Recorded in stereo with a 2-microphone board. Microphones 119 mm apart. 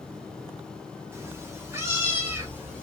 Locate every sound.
1.1 s a cat meowing: 20° right (ahead or behind), 0.7 m